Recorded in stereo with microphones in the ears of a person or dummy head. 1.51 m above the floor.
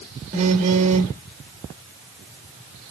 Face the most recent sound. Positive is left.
turn(degrees=-40)  # may be behind; listen again after turning